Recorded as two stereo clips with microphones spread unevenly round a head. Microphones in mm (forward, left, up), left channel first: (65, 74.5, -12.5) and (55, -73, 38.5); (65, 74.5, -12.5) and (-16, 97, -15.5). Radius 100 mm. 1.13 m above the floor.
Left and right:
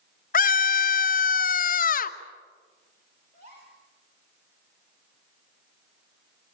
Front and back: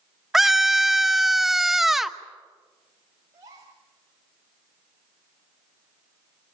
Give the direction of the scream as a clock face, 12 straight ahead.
9 o'clock.